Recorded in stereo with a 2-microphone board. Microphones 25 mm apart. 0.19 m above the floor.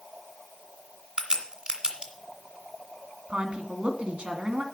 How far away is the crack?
About 1.8 m.